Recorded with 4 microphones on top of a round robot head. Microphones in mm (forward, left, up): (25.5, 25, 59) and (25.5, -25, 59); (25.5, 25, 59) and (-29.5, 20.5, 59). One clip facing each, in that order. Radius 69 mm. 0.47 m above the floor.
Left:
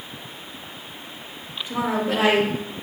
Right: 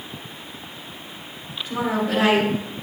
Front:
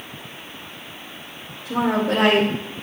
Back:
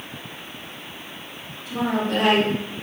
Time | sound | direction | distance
1.6 | a woman speaking | 15° left | 2.5 m